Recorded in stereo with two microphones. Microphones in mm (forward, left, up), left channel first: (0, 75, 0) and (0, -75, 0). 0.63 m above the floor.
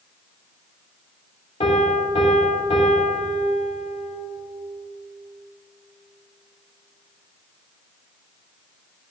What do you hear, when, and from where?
1.6 s a piano: 45° left (ahead or behind), 1.8 m